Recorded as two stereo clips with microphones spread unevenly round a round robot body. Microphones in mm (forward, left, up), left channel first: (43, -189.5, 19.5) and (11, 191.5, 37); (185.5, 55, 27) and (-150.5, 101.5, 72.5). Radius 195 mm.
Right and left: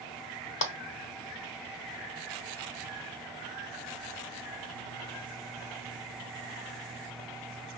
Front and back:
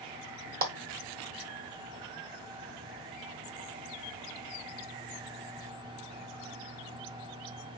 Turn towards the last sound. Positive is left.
turn(degrees=-125)